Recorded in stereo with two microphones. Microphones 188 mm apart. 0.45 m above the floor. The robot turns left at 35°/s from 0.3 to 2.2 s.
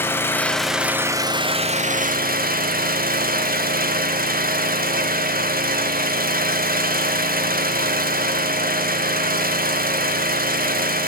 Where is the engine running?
10° left, 0.7 m; by 11.1 s 55° right, 0.7 m.